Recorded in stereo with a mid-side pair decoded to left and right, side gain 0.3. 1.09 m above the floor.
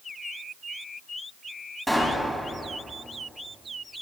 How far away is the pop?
About 2.5 m.